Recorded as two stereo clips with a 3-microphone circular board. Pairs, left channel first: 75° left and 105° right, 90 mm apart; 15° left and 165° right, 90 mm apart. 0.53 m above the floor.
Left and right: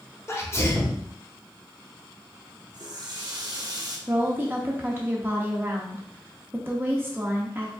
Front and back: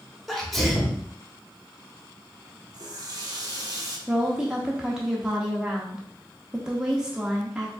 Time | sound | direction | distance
0.3 | a sneeze | 100° left | 1.0 m
2.7 | a running tap | 130° right | 0.9 m
4.1 | a woman speaking | 95° right | 0.6 m